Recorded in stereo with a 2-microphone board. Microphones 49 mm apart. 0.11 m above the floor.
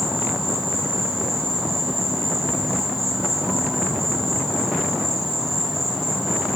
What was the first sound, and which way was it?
An insect, 5° left (ahead or behind).